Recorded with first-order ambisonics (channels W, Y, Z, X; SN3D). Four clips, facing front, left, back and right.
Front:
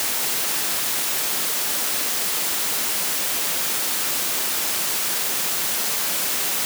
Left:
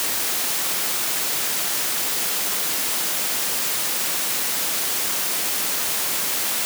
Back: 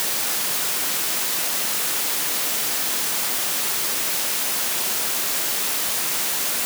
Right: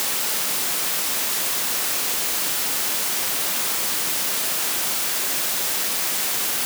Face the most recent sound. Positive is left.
No sound to turn to.